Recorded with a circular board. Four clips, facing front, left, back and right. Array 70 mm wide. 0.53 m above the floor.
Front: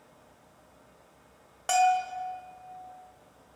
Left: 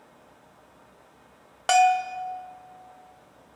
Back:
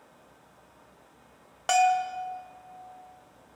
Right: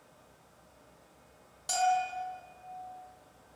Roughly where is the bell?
Left.